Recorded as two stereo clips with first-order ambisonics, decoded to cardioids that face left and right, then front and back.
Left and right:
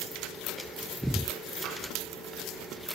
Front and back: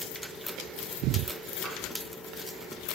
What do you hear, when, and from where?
1.6 s tapping: 115° right, 1.7 m